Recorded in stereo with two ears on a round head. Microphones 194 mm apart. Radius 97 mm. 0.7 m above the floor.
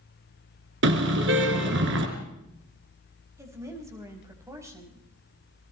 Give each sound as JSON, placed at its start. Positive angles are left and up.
{"t": 0.8, "sound": "a car horn", "side_deg": -60, "distance_m": 4.0}
{"t": 3.4, "sound": "a woman speaking", "side_deg": -15, "distance_m": 4.5}